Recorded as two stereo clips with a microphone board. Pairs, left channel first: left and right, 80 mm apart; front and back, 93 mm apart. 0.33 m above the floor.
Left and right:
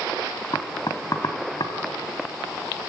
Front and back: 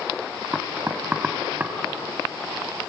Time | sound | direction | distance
0.5 | knocking | 110° left | 1.8 m